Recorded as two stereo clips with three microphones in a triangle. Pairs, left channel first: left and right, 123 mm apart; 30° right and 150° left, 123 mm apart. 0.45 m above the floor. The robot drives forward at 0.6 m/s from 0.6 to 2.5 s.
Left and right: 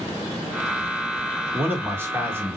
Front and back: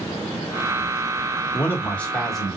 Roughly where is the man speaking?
Ahead right.